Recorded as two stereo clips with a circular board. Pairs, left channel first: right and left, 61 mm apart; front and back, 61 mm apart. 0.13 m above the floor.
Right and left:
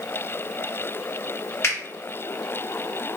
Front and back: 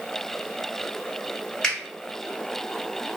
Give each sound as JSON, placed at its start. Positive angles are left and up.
{"t": 1.6, "sound": "a finger snap", "azimuth_deg": -75, "distance_m": 2.0}